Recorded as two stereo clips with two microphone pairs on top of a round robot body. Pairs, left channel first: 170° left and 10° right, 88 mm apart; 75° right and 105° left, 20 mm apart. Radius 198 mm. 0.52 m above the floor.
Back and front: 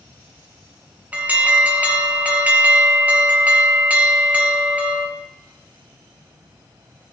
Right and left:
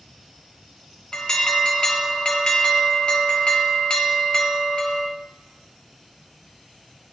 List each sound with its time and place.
1.1 s an alarm: 65° right, 1.4 m